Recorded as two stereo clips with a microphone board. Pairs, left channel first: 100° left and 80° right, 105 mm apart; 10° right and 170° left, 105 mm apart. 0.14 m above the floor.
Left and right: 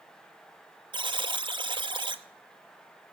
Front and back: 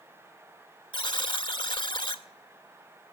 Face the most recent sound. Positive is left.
turn(degrees=-50)